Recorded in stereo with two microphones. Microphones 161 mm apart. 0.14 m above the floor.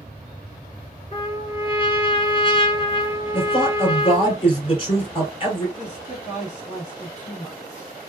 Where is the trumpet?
35° left (ahead or behind), 1.6 m.